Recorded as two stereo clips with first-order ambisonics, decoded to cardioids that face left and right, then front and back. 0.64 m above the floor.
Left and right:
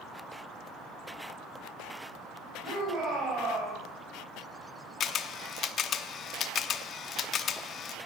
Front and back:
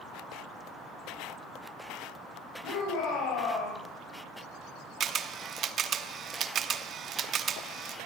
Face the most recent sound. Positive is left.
turn(degrees=135)